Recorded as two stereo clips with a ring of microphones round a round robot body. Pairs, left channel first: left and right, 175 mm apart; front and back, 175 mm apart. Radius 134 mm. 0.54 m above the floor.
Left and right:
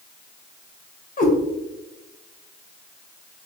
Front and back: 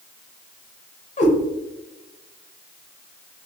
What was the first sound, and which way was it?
A cat meowing, 50° left.